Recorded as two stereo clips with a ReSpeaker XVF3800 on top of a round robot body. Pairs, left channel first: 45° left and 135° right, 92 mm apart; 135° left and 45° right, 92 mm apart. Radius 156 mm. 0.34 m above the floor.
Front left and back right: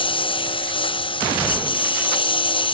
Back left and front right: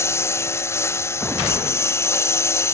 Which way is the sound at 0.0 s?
75° left.